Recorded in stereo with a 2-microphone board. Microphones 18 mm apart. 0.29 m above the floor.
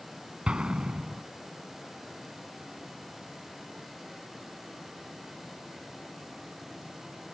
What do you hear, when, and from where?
0.5 s an explosion: 60° right (ahead or behind)